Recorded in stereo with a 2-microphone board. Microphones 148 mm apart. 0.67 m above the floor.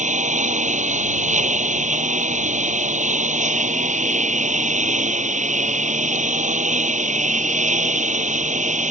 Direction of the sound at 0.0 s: 55° right (ahead or behind).